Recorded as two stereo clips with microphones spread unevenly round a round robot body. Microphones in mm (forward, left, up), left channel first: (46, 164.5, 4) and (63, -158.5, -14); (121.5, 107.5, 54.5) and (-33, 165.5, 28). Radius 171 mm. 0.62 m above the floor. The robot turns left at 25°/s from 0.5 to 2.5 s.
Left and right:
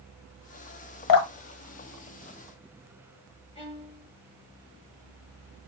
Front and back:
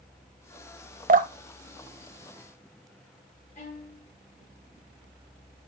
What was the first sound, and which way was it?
Dripping, 125° left.